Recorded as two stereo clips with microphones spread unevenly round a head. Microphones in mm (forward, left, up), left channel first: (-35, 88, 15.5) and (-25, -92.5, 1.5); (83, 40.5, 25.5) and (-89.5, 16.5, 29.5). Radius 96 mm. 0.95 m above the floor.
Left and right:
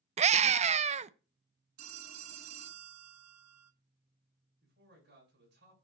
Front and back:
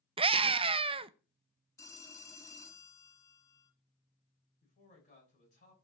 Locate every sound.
0.2 s a scream: 120° right, 0.5 m
1.8 s a phone ringing: 65° right, 1.1 m
4.6 s a man speaking: 45° right, 6 m